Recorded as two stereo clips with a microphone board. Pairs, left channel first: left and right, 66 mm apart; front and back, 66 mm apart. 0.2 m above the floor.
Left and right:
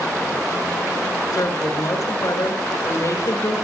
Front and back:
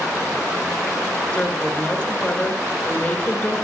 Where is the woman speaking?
75° left, 3 m.